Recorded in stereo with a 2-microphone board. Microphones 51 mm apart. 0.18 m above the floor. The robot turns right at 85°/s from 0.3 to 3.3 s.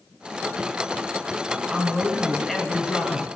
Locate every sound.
1.7 s a man speaking: 10° right (ahead or behind), 1.5 m; by 3.3 s 20° left (ahead or behind), 1.5 m